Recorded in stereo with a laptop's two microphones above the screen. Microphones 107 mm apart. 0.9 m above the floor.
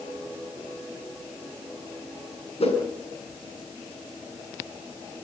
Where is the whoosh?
70° left (ahead or behind), 6.5 m.